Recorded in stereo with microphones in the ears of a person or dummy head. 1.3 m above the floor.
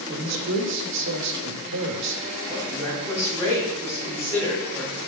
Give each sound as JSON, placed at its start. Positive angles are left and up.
{"t": 0.1, "sound": "a man speaking", "side_deg": -75, "distance_m": 1.7}
{"t": 2.5, "sound": "a woman speaking", "side_deg": 10, "distance_m": 5.0}